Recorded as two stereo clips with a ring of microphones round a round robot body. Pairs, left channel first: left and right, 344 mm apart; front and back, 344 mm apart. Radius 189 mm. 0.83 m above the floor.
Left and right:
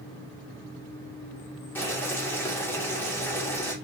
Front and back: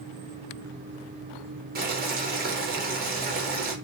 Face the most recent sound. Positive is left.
turn(degrees=165)